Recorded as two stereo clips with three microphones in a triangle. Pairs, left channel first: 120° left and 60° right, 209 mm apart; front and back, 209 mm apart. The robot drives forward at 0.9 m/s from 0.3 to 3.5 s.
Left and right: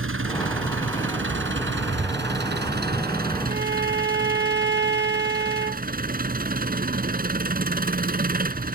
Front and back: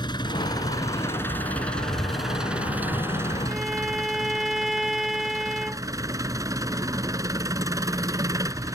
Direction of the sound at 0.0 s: 70° right.